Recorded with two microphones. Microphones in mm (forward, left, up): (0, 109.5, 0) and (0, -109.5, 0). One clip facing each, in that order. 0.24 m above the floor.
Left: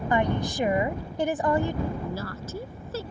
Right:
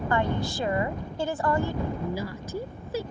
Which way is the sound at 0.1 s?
20° left (ahead or behind).